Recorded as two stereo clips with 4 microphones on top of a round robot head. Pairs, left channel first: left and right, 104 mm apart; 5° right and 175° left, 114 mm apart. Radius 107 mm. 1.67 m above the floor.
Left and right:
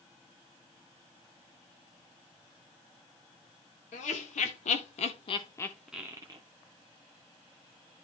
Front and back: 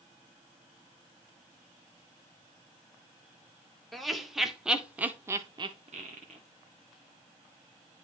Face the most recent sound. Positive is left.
turn(degrees=-140)